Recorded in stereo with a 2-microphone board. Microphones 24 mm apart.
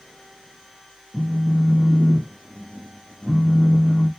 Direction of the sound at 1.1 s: 15° left (ahead or behind).